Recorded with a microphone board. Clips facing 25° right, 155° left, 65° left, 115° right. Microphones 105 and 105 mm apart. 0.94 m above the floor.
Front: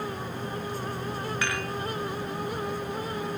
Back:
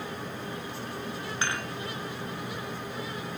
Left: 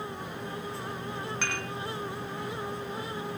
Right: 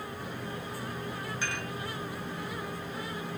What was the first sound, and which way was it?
Dishes clattering, 95° left.